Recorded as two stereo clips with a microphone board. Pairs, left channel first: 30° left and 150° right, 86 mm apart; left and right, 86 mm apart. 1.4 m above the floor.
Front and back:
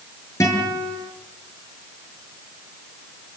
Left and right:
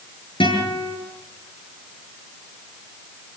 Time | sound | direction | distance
0.4 | a guitar | 80° left | 8.5 m